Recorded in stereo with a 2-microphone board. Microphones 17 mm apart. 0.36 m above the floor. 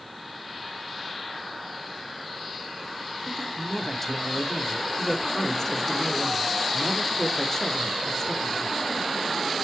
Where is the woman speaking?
25° left (ahead or behind), 1.0 m.